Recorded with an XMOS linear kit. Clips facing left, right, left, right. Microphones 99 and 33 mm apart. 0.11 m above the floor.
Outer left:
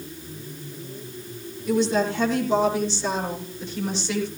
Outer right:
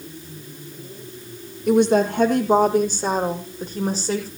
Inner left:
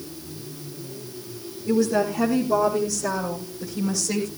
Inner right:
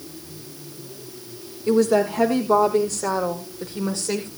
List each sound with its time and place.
1.7 s a woman speaking: 60° right (ahead or behind), 4.5 m; by 4.3 s 40° right (ahead or behind), 5.5 m